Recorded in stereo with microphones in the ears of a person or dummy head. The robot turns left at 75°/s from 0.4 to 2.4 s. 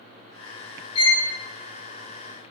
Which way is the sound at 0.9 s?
35° left (ahead or behind).